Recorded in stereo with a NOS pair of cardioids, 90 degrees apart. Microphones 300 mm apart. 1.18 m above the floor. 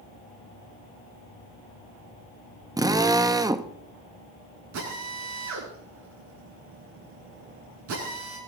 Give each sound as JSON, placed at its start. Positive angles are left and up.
{"t": 2.8, "sound": "a drill", "azimuth_deg": -10, "distance_m": 1.2}
{"t": 4.7, "sound": "a drill", "azimuth_deg": -65, "distance_m": 10.0}